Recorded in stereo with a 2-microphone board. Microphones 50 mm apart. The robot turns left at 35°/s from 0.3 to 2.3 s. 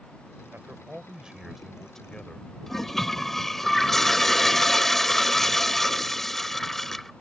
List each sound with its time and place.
0.5 s a man speaking: 140° right; by 2.5 s 160° left
2.7 s a toilet flushing: 5° left (ahead or behind)